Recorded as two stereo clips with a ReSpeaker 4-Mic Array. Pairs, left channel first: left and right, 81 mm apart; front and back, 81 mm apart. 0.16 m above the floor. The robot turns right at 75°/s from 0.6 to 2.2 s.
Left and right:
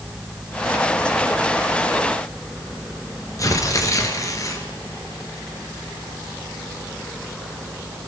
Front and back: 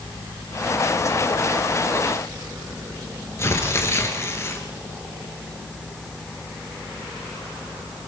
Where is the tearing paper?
50° left, 3 m.